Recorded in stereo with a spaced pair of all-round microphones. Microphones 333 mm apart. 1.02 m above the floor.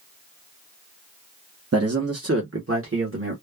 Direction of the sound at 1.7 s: 45° right (ahead or behind).